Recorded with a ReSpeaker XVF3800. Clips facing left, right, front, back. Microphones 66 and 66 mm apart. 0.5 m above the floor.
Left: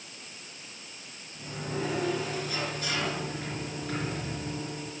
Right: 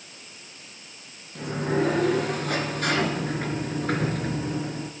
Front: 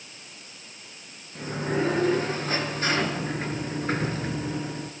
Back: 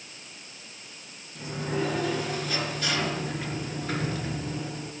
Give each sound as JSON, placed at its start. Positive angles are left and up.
{"t": 1.4, "sound": "a sliding door", "azimuth_deg": -55, "distance_m": 2.5}